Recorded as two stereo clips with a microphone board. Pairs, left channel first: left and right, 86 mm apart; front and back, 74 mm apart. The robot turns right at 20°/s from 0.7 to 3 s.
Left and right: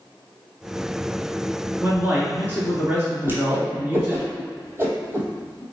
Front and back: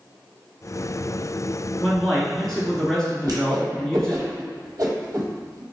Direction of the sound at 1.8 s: 95° right.